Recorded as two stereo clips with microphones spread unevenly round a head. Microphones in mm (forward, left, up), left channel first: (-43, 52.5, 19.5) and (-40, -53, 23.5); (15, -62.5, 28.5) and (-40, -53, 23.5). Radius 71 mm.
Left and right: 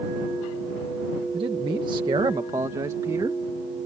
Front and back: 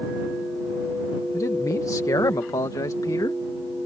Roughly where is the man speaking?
Ahead right.